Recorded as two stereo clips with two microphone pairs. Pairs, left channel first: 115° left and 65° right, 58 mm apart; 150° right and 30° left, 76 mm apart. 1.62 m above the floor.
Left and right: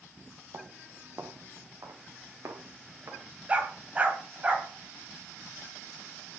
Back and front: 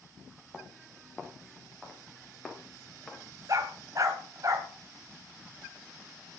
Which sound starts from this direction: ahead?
A dog barking, at 3.5 s.